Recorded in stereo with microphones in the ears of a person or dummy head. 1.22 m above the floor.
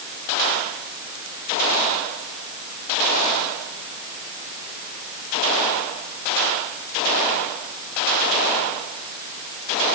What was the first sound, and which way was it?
Only background noise.